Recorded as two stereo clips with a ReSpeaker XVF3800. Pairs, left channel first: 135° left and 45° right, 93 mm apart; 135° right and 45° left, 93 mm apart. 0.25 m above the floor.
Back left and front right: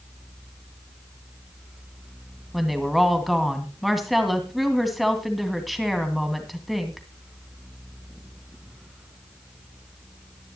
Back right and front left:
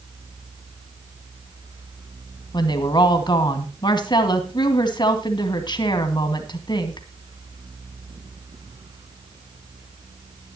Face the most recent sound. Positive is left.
turn(degrees=-135)